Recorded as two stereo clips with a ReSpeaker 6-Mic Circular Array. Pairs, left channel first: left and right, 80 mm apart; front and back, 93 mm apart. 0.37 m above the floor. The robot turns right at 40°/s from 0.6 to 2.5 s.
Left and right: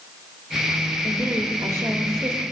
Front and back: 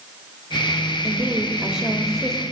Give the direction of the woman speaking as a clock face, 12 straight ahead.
4 o'clock.